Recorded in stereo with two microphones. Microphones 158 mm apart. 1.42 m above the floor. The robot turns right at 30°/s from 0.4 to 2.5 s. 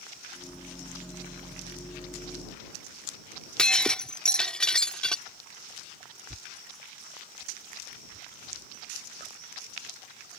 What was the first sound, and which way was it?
Breaking glass, 5° left (ahead or behind).